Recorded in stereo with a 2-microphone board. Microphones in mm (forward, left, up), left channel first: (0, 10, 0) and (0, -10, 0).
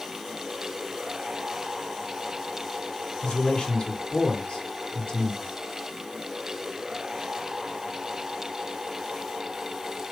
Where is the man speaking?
60° left (ahead or behind), 3 m.